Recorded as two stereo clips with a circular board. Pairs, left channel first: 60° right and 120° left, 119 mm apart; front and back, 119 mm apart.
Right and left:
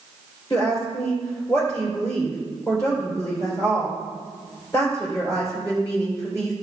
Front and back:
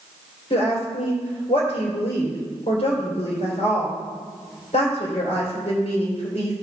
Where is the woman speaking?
5° left, 3 m.